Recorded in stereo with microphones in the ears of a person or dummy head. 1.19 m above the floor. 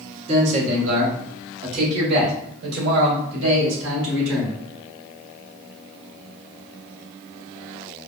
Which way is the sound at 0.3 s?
35° right (ahead or behind).